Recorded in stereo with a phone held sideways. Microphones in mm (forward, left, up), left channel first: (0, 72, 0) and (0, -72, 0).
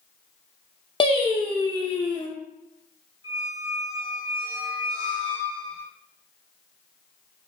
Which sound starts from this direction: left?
Singing, at 1.0 s.